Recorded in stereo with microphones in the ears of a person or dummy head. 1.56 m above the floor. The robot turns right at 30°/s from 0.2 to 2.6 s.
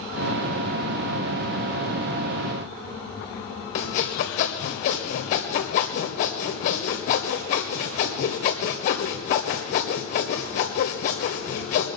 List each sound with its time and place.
3.8 s sawing: 45° left (ahead or behind), 1.8 m